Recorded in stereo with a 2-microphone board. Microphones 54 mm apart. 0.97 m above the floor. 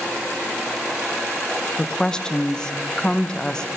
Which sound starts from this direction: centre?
A woman speaking, at 1.8 s.